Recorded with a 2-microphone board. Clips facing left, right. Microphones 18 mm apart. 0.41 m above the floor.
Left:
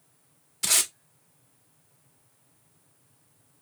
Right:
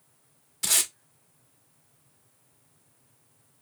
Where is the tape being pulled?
5° left (ahead or behind), 0.7 m.